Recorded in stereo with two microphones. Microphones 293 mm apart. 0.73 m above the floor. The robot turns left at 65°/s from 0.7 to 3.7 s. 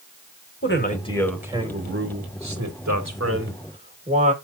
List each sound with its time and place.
0.6 s a man speaking: 40° left, 2 m; by 4.3 s 155° right, 2 m